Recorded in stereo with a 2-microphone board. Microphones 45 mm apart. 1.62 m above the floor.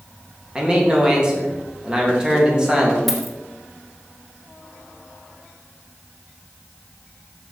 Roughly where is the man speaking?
Centre.